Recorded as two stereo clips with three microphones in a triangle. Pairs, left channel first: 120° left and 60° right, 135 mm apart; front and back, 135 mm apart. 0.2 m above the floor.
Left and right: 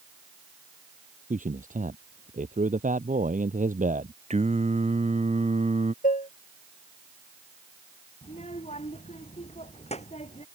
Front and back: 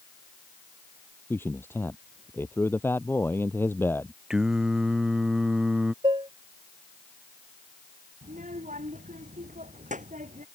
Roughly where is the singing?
Right.